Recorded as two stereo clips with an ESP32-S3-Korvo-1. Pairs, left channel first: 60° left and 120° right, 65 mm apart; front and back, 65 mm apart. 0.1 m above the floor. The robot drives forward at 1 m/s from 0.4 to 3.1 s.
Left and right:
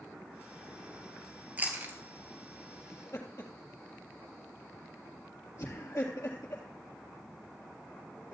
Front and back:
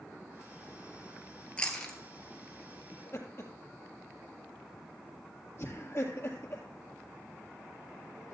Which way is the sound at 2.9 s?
30° left.